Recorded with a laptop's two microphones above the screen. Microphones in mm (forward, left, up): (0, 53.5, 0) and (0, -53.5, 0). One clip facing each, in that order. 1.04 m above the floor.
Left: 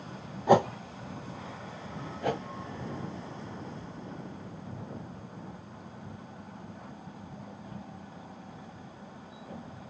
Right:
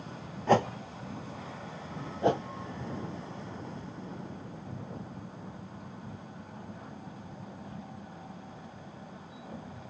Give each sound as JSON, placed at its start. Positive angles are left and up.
{"t": 0.5, "sound": "a whoosh", "side_deg": 10, "distance_m": 0.7}
{"t": 2.2, "sound": "a whoosh", "side_deg": -25, "distance_m": 0.5}